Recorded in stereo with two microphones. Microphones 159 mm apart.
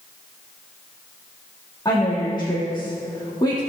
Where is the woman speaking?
20° left (ahead or behind), 3.5 m.